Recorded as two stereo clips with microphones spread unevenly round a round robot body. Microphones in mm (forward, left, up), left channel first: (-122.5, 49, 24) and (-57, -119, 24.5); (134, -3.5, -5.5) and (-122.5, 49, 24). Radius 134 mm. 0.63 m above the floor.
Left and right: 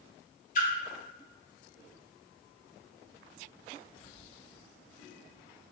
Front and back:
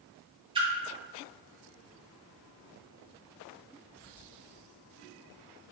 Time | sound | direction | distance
0.6 | a splash | 100° left | 0.5 m